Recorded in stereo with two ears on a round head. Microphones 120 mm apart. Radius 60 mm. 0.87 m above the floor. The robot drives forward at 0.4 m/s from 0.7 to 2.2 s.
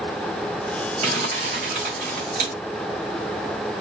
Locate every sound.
1.0 s crumpling: 50° right (ahead or behind), 2.5 m; by 2.5 s 60° right (ahead or behind), 2 m